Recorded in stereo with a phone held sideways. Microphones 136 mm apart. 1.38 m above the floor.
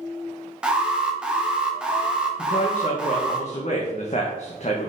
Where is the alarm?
5° right (ahead or behind), 1.1 m.